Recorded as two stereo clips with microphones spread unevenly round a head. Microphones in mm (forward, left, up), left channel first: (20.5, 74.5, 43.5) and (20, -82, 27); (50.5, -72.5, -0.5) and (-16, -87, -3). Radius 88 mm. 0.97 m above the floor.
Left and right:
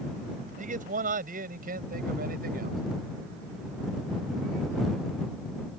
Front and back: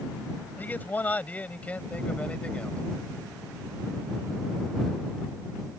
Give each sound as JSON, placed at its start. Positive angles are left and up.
{"t": 0.6, "sound": "a man speaking", "azimuth_deg": -50}